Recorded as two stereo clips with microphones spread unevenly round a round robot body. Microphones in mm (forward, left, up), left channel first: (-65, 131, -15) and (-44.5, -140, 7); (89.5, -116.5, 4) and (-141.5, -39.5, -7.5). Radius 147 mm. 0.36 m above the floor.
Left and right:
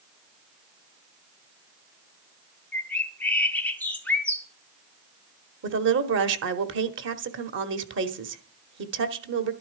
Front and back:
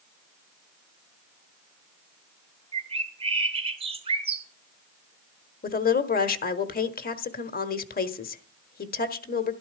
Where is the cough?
No cough in this recording.